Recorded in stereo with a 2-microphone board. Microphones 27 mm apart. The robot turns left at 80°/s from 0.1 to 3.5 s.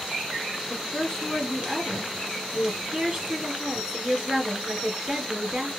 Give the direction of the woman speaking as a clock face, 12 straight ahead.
6 o'clock.